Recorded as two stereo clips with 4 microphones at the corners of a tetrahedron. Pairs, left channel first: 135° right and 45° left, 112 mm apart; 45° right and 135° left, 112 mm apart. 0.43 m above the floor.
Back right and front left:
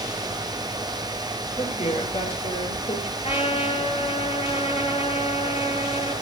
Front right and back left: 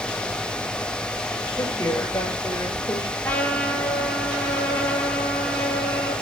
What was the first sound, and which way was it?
A woman speaking, 110° right.